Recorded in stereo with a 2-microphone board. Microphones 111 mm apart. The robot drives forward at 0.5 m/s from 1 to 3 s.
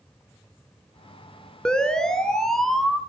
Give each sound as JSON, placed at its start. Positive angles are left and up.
{"t": 1.6, "sound": "a siren", "side_deg": 5, "distance_m": 2.5}